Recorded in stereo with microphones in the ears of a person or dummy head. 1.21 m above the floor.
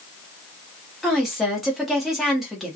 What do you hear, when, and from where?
1.0 s a woman speaking: 5° right (ahead or behind), 0.8 m